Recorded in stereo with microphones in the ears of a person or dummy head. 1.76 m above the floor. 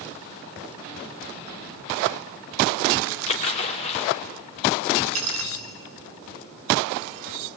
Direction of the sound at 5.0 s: 35° right (ahead or behind).